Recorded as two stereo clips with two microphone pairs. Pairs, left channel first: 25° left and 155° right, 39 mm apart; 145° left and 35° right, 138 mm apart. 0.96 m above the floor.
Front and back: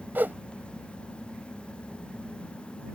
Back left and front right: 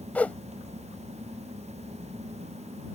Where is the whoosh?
140° right.